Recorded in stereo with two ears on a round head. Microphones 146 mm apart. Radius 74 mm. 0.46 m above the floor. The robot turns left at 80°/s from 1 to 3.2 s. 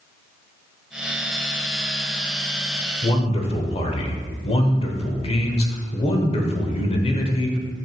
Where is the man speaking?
30° left (ahead or behind), 1.2 m; by 7.6 s 40° left (ahead or behind), 1.2 m.